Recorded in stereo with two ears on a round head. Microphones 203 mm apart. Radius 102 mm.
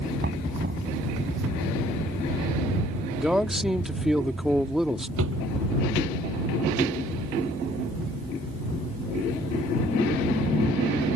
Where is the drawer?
65° right (ahead or behind).